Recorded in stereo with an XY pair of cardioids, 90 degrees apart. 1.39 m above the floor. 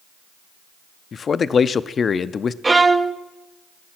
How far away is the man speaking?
About 0.5 m.